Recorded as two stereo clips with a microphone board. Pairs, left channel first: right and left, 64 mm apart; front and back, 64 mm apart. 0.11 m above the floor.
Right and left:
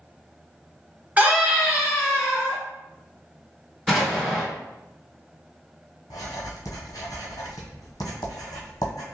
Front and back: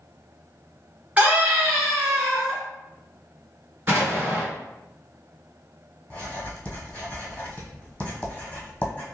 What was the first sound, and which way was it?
A scream, 130° left.